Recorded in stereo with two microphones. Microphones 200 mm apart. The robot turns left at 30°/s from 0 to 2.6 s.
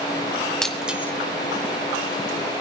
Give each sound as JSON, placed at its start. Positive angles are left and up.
{"t": 0.6, "sound": "breaking glass", "side_deg": 5, "distance_m": 1.5}